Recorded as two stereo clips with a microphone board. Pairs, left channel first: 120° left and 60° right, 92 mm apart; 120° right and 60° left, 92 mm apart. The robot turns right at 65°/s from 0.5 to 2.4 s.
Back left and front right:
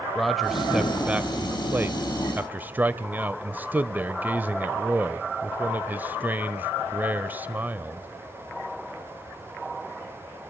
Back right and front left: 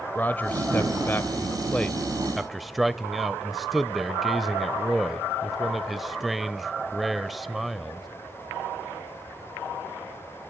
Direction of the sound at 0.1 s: 150° right.